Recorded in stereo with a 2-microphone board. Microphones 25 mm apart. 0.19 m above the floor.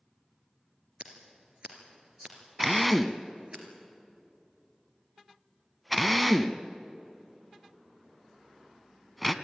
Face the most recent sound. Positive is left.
turn(degrees=0)  # may be behind; listen again after turning